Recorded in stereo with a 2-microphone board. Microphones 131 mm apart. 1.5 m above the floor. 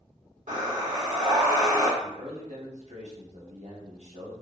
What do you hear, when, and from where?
0.5 s breathing: 70° right (ahead or behind), 1.7 m
2.0 s a man speaking: 60° right (ahead or behind), 1.0 m